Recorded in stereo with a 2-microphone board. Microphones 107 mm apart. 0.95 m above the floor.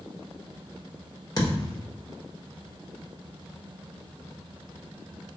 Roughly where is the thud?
Left.